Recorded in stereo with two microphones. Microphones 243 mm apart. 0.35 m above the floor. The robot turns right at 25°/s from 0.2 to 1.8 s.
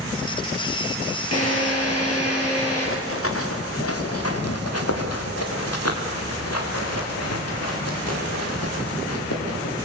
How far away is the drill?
About 9.5 m.